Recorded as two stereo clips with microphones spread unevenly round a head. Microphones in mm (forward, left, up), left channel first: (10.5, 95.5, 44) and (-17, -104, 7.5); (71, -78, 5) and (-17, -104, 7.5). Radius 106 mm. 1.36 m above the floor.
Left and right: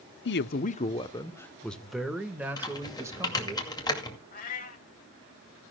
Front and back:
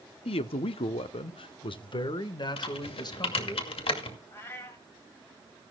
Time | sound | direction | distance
0.2 | a man speaking | 45° left | 0.7 m
2.6 | typing on a keyboard | 10° left | 2 m
4.3 | a cat meowing | 80° left | 1.6 m